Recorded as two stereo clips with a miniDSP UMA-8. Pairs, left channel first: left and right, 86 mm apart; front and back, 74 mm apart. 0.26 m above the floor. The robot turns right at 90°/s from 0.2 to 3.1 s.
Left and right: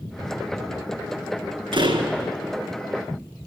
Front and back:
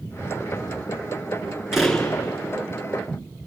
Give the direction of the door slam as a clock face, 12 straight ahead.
3 o'clock.